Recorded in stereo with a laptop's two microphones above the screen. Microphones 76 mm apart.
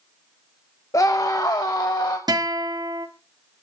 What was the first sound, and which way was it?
A scream, 45° left (ahead or behind).